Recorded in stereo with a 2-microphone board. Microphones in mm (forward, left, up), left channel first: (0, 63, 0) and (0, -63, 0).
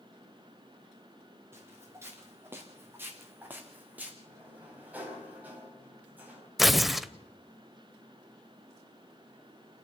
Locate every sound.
1.5 s footsteps: 20° right (ahead or behind), 4 m; by 4.2 s 10° right (ahead or behind), 2.5 m
4.2 s a sliding door: 15° right (ahead or behind), 4.5 m
6.6 s tearing paper: centre (ahead or behind), 0.7 m